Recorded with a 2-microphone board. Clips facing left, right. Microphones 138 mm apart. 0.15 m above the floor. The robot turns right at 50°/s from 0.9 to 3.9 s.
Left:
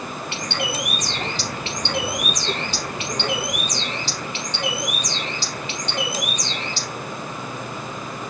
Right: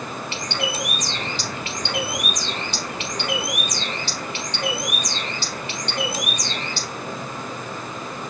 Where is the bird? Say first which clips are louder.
Even; 110° left, 3 m; by 6.9 s 100° right, 3 m.